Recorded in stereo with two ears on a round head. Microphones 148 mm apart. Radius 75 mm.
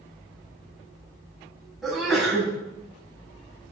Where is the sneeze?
Centre (ahead or behind), 6 m.